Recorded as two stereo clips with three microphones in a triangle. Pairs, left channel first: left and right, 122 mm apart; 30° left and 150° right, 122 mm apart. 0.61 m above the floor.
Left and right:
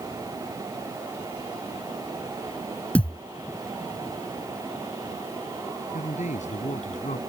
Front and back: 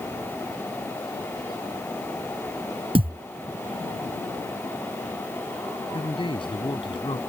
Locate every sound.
3.0 s a thud: 170° left
5.9 s a man speaking: 75° left